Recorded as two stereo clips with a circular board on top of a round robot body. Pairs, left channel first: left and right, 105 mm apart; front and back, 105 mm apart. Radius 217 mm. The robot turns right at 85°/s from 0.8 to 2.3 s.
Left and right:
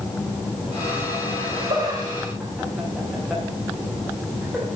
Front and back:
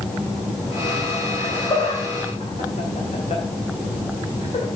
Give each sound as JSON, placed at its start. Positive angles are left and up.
{"t": 1.4, "sound": "laughter", "azimuth_deg": -85, "distance_m": 2.5}